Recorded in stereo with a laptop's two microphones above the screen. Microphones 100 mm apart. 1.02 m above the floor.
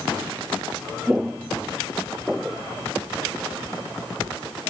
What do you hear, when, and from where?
1.1 s footsteps: 10° right (ahead or behind); by 2.6 s 5° right (ahead or behind)